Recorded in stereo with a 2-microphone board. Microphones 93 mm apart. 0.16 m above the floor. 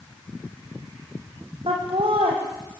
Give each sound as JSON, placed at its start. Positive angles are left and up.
{"t": 1.7, "sound": "laughter", "side_deg": -75, "distance_m": 6.5}